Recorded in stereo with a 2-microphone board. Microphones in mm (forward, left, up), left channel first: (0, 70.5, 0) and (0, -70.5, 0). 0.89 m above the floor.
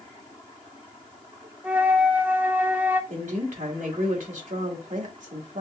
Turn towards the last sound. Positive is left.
turn(degrees=-75)  # may be behind; listen again after turning